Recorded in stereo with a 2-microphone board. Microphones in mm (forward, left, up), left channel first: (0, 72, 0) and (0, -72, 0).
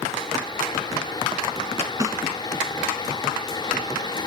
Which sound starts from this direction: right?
A snare drum, at 2.0 s.